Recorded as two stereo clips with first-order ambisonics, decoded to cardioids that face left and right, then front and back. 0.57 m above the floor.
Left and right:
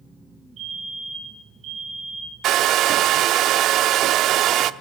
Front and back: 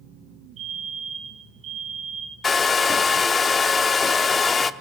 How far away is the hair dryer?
About 0.7 m.